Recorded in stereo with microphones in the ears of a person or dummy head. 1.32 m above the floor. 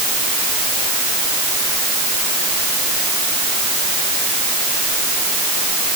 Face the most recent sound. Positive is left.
No sound to turn to.